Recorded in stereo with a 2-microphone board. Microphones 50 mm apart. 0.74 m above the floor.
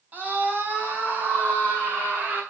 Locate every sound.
0.1 s a scream: 35° right (ahead or behind), 4.5 m